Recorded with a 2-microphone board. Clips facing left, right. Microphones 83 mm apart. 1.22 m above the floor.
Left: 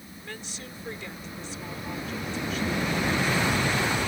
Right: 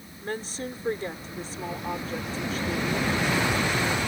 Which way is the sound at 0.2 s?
40° right (ahead or behind).